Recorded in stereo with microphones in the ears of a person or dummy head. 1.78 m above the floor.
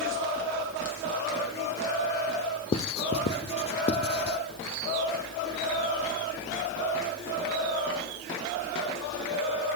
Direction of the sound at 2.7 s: 30° left (ahead or behind).